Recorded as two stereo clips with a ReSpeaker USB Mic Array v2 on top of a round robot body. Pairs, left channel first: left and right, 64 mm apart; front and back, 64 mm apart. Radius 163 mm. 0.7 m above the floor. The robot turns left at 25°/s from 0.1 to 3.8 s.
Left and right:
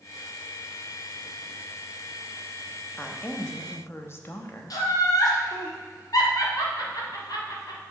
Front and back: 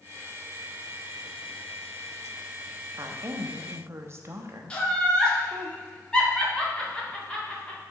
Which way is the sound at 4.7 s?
75° left.